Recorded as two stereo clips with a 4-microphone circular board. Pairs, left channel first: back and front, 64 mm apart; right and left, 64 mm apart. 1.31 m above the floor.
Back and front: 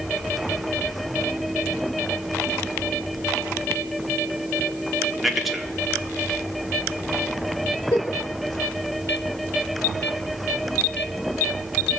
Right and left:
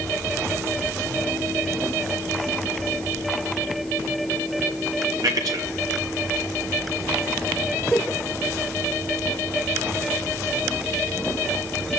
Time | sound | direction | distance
5.2 | a man speaking | 90° left | 1.7 m
7.9 | a giggle | 170° right | 2.5 m